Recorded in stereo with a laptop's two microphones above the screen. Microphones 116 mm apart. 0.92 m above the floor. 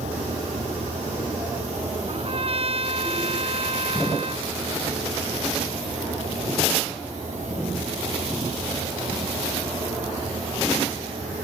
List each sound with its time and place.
0.0 s a fan: 90° right
2.1 s a trumpet: 55° right (ahead or behind)